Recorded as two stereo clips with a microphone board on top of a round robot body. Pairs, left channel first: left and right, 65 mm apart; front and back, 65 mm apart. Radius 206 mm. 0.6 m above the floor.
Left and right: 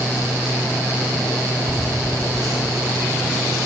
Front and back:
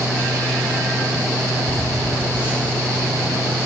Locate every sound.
1.7 s laughter: 115° right, 4 m; by 3.7 s 105° right, 3 m